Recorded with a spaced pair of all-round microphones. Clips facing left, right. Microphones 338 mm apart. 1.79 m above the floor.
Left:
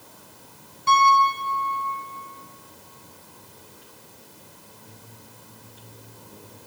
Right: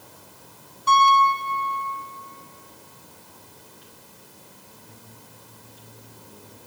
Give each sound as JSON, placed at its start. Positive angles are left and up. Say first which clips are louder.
{"t": 0.9, "sound": "a piano", "louder": "right 1 dB", "side_deg": 30, "distance_m": 3.0}